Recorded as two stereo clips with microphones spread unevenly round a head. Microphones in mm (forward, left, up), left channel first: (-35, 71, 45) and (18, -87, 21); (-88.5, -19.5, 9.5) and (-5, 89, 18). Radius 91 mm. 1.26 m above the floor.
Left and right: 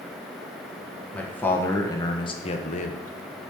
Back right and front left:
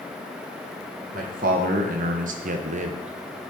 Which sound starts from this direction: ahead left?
A man speaking, at 1.1 s.